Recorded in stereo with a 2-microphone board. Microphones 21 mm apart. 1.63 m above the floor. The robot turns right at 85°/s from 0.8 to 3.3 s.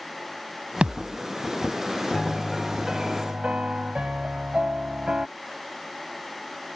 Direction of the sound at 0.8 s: 80° right.